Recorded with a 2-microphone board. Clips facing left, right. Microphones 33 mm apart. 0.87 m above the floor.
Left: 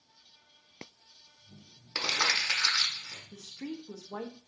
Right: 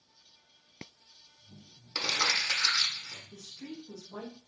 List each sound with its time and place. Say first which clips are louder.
1.9 s crumpling: left 1 dB; 25° left (ahead or behind), 0.7 m
3.3 s a woman speaking: left 3 dB; 55° left (ahead or behind), 0.5 m